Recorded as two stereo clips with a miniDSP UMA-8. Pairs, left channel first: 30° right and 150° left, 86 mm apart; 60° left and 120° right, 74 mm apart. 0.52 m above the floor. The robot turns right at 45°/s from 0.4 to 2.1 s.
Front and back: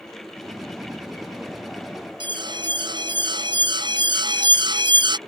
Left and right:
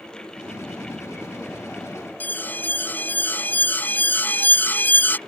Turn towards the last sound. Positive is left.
turn(degrees=125)